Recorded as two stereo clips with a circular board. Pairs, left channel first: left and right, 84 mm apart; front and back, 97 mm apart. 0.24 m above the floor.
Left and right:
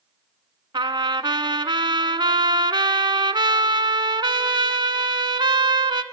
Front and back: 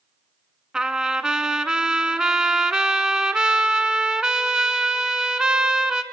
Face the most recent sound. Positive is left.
turn(degrees=-95)